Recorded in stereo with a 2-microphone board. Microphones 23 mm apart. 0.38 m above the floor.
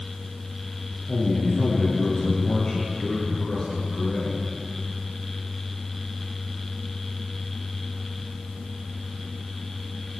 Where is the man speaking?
35° left (ahead or behind), 7 m.